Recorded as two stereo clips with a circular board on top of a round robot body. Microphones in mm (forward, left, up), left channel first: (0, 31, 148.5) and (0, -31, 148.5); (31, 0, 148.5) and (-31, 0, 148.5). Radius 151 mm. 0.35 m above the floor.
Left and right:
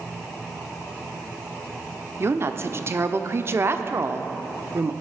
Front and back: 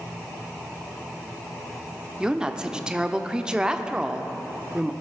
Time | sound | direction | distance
2.2 | a woman speaking | 110° right | 1.0 m